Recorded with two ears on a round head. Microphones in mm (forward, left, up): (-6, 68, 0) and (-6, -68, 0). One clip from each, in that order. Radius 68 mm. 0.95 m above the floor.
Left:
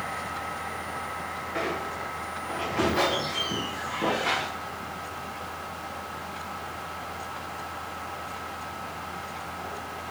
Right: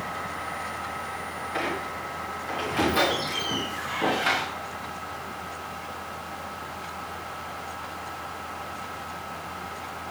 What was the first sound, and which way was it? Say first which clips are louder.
A squeak: right 1 dB; 75° right (ahead or behind).